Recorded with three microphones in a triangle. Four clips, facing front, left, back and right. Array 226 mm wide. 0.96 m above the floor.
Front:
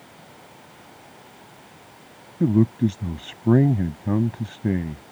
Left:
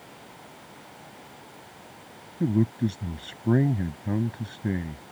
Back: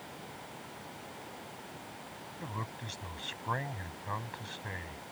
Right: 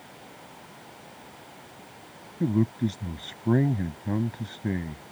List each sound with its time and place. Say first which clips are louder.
2.4 s a man speaking: left 1 dB, front 23 dB; 5° right